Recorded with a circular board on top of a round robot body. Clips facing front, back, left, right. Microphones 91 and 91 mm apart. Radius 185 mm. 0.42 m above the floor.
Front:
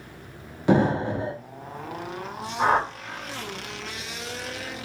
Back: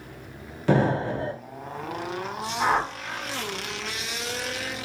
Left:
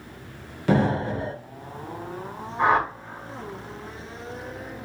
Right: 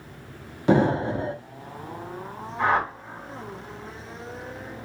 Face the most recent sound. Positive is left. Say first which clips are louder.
# front 2 dB, left 2 dB
turn(degrees=20)